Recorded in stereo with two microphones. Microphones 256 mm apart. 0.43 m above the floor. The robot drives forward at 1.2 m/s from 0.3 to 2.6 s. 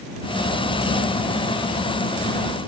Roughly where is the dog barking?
No dog barking in this recording.